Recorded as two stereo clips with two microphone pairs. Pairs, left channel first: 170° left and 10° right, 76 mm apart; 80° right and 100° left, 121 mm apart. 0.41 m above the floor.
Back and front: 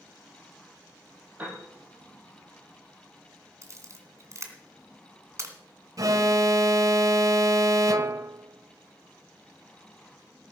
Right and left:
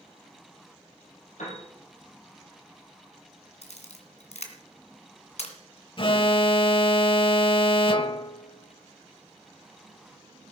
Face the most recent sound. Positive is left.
turn(degrees=-45)